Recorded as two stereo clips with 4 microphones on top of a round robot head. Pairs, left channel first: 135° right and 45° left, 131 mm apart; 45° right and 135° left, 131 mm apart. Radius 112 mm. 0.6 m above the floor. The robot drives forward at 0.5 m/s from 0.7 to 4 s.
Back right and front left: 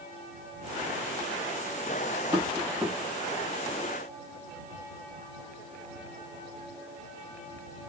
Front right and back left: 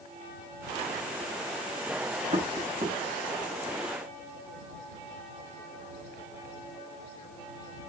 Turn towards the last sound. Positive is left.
turn(degrees=120)